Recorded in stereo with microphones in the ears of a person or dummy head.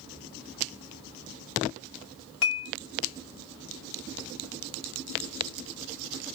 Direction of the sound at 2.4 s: 75° left (ahead or behind).